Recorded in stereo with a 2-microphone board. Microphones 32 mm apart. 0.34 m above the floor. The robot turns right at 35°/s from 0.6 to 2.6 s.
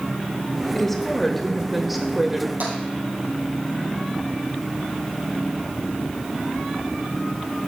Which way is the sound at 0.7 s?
10° left (ahead or behind).